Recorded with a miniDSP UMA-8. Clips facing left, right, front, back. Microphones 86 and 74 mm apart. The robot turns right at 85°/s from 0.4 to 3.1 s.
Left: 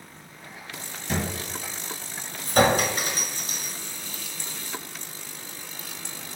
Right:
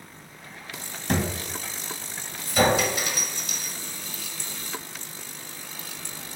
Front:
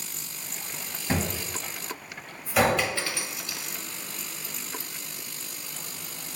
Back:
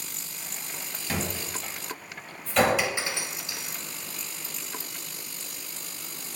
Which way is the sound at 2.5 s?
70° left.